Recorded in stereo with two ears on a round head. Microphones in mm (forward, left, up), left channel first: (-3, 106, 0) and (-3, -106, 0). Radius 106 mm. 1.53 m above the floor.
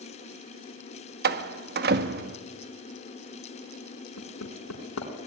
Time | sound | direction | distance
1.2 | a door slam | 45° right (ahead or behind) | 1.4 m
4.2 | hammering | 70° left (ahead or behind) | 5 m